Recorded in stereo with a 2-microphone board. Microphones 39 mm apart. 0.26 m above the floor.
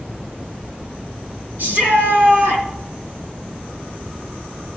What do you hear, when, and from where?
1.6 s a shout: 55° right (ahead or behind), 3.5 m